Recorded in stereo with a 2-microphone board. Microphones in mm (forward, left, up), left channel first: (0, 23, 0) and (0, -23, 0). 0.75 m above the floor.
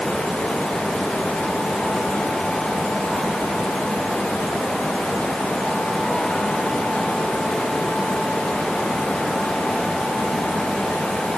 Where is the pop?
I don't hear a pop.